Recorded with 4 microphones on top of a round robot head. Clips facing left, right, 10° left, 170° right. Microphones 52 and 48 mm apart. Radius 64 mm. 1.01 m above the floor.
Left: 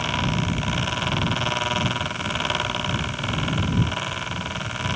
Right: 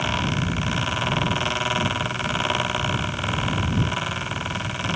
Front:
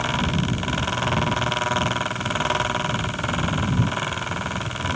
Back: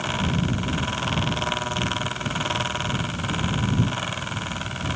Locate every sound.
Only background noise.